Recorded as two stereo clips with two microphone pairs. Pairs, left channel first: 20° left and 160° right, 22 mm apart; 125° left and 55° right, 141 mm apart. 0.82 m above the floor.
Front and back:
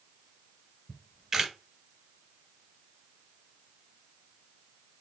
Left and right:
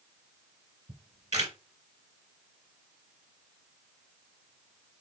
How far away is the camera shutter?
About 2 m.